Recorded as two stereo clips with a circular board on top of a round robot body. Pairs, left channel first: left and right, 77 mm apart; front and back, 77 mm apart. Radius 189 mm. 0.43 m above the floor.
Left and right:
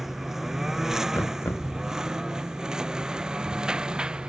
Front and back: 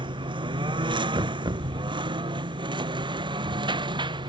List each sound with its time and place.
0.0 s a lawn mower: 175° right; by 4.3 s 170° right
1.1 s knocking: 155° left